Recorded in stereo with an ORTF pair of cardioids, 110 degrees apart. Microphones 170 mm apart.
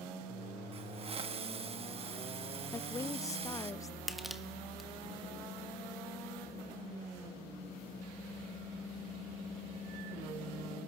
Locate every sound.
0.7 s a hiss: 35° right, 1.3 m
2.7 s a woman speaking: 20° left, 0.7 m
4.1 s crushing: straight ahead, 1.6 m